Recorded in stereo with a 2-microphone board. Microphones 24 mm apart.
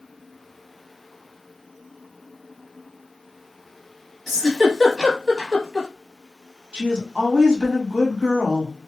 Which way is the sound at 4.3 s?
20° right (ahead or behind).